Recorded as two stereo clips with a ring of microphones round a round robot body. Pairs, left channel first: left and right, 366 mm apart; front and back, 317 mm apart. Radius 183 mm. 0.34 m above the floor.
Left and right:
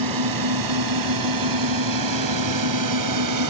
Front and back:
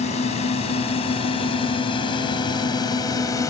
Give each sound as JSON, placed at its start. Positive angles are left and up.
{"t": 0.0, "sound": "a drone", "azimuth_deg": -70}